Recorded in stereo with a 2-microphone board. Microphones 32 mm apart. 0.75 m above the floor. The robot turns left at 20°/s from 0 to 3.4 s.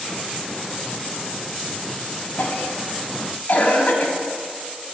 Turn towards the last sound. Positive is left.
turn(degrees=50)  # may be behind; listen again after turning